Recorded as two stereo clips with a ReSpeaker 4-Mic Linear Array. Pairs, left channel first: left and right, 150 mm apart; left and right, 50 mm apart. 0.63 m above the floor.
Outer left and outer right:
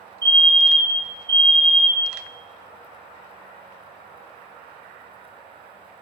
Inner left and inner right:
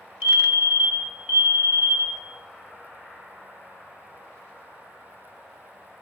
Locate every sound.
0.2 s a fire alarm: 25° right (ahead or behind), 3 m